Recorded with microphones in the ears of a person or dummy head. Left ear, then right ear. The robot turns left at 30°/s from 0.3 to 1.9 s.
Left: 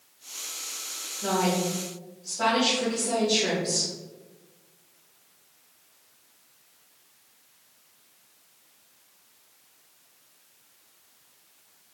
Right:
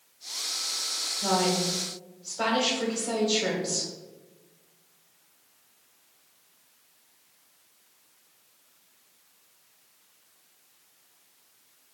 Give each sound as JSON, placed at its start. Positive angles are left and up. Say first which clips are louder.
{"t": 1.2, "sound": "a woman speaking", "louder": "left 1 dB", "side_deg": -85, "distance_m": 1.0}